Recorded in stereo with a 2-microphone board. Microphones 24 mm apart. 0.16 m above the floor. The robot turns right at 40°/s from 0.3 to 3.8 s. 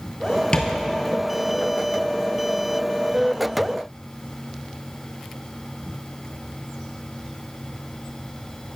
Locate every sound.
0.5 s tapping: 45° left (ahead or behind), 1.1 m; by 0.7 s 40° left (ahead or behind), 1.1 m